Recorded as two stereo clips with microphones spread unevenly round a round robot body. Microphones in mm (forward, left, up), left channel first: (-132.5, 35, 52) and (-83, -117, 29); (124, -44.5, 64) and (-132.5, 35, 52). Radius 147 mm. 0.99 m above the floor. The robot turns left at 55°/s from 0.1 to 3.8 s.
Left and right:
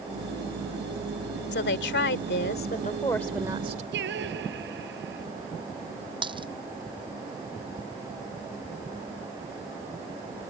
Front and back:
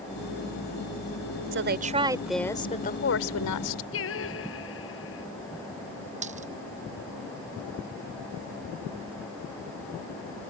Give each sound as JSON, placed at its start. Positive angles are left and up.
{"t": 1.5, "sound": "a woman speaking", "azimuth_deg": 115}
{"t": 3.9, "sound": "singing", "azimuth_deg": -60}
{"t": 6.2, "sound": "a dropped coin", "azimuth_deg": -130}